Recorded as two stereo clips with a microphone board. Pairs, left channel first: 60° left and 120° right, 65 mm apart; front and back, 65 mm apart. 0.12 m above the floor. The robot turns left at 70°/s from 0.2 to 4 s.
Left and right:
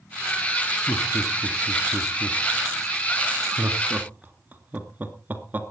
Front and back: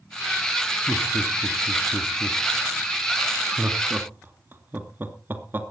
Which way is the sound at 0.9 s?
65° left.